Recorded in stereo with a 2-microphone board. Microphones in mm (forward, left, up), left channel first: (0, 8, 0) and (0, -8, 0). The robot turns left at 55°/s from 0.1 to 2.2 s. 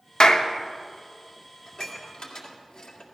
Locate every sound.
0.2 s a clap: 60° left (ahead or behind), 1.0 m; by 0.5 s 50° left (ahead or behind), 1.0 m
1.7 s dishes clattering: 30° left (ahead or behind), 2 m; by 3.0 s 60° left (ahead or behind), 2 m